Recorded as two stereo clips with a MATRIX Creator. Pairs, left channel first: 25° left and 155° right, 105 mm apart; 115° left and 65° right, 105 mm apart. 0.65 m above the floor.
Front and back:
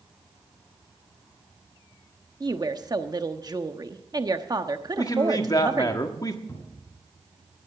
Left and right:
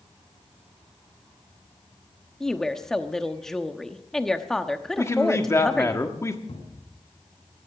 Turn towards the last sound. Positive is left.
turn(degrees=85)